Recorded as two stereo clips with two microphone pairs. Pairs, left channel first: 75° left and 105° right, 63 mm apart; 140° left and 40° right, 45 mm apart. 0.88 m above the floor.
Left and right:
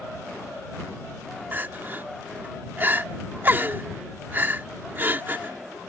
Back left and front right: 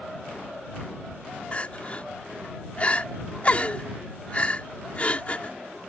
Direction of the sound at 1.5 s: 165° right.